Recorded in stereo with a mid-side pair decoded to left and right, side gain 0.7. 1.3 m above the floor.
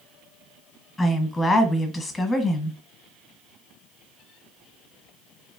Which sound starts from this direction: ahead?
A woman speaking, at 1.0 s.